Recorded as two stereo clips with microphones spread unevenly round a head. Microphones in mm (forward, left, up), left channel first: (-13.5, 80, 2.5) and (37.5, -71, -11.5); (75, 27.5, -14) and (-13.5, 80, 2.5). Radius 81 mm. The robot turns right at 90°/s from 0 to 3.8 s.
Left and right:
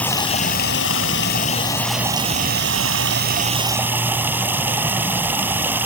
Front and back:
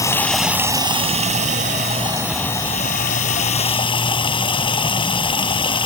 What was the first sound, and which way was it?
Running water, 25° left.